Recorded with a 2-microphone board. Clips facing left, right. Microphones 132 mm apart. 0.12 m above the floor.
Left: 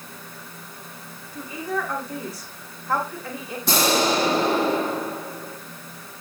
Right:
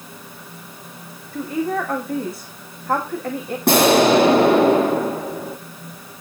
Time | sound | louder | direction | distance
1.3 | a woman speaking | right 6 dB | 60° right (ahead or behind) | 6.5 m
3.7 | an explosion | right 8 dB | 70° right (ahead or behind) | 2.0 m